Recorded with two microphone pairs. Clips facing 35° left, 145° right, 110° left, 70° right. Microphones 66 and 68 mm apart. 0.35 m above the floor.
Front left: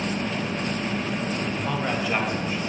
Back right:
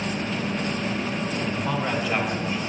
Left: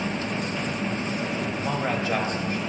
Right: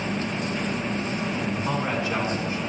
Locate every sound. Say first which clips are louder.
1.4 s a man speaking: back right 1 dB, even; 130° left, 2 m; by 2.6 s 120° left, 1.7 m